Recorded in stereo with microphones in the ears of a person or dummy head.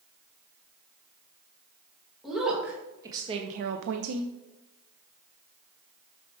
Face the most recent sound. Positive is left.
turn(degrees=-75)  # may be behind; listen again after turning